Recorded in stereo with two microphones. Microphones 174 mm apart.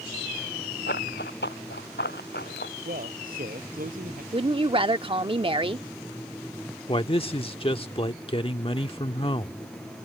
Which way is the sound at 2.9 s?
55° right (ahead or behind).